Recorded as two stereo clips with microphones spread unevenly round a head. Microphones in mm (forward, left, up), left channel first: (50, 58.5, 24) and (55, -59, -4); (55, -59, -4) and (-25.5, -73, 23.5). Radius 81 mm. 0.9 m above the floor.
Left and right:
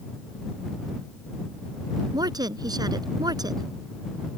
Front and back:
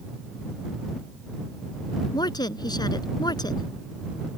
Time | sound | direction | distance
2.1 | a woman speaking | 30° right | ?